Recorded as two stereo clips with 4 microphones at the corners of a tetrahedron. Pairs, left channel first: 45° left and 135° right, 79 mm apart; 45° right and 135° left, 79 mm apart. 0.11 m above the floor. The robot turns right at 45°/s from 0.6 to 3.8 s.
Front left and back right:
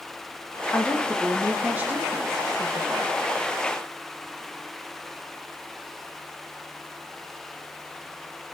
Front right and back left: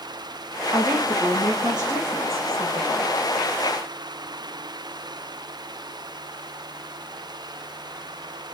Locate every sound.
0.7 s a woman speaking: 110° left, 4 m; by 3.1 s 145° right, 4 m